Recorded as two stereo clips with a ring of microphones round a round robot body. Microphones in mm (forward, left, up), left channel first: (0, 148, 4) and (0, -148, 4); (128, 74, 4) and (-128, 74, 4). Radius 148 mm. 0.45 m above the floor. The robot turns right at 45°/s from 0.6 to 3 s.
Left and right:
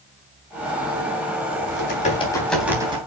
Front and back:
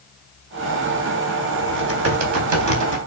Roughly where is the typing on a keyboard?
Behind left.